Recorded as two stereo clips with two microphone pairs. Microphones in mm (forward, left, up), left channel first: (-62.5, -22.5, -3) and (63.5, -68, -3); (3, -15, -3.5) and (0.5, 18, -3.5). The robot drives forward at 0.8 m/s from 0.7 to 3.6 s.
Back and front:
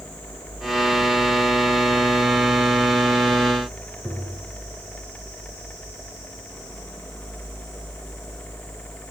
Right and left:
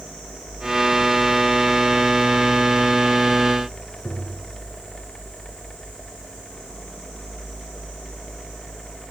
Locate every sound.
4.0 s tapping: 90° right, 5.5 m